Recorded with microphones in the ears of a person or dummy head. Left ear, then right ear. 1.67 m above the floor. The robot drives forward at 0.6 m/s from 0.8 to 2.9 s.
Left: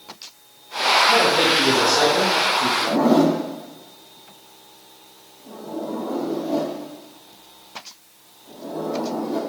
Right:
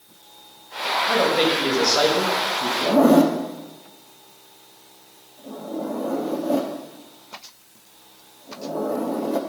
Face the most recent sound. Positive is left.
turn(degrees=-60)  # may be behind; listen again after turning